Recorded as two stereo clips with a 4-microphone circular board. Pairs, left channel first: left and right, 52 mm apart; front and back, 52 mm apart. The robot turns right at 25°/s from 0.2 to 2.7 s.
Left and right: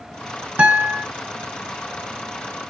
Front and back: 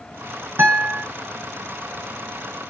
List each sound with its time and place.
0.6 s a guitar: 145° right, 3 m; by 1.1 s 135° right, 3 m